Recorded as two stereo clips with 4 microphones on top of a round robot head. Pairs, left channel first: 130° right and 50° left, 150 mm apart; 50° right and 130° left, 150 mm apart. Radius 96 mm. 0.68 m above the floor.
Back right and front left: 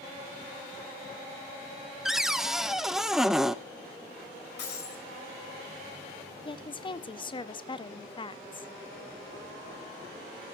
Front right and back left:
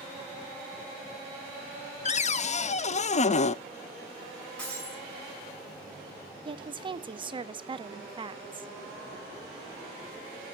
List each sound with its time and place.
2.0 s a cupboard door: 40° right, 0.6 m
4.6 s breaking glass: 130° right, 5.5 m
6.5 s a woman speaking: straight behind, 0.8 m